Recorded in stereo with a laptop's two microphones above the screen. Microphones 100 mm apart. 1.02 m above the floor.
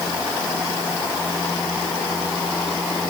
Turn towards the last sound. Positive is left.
No sound to turn to.